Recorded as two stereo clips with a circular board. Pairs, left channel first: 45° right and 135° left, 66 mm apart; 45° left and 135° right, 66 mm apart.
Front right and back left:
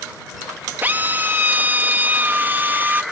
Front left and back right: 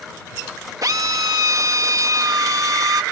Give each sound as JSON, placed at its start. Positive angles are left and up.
{"t": 0.8, "sound": "a drill", "azimuth_deg": -165}